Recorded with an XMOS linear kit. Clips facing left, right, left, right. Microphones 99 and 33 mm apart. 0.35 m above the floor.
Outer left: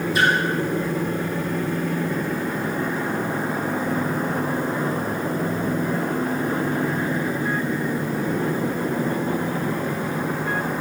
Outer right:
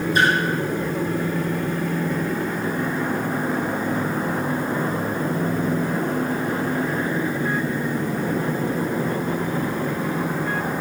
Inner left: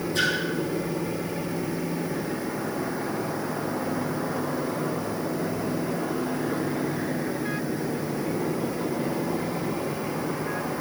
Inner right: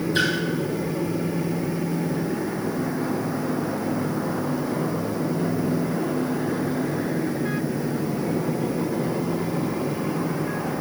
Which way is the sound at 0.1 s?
40° right (ahead or behind).